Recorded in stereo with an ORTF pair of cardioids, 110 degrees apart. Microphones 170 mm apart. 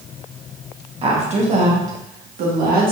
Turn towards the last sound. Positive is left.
turn(degrees=-60)